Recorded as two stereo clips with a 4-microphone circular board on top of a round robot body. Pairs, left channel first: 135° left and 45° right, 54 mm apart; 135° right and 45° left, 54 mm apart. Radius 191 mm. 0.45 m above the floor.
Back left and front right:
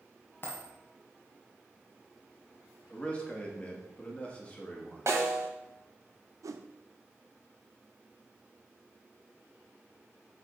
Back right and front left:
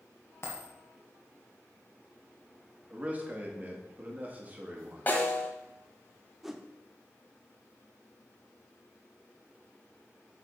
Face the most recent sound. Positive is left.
turn(degrees=-40)